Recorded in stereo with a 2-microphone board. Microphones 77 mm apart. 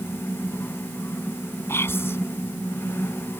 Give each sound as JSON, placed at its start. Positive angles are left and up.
{"t": 1.7, "sound": "whispering", "side_deg": 35}